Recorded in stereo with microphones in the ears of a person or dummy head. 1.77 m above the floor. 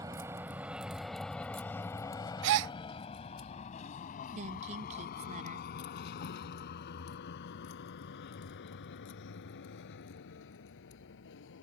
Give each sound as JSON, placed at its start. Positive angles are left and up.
{"t": 0.0, "sound": "a vehicle", "side_deg": -20}
{"t": 2.4, "sound": "a gasp", "side_deg": -70}
{"t": 4.3, "sound": "a woman speaking", "side_deg": -40}